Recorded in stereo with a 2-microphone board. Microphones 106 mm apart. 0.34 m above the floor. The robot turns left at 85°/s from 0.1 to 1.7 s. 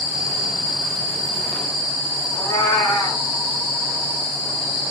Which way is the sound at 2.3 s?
25° left (ahead or behind).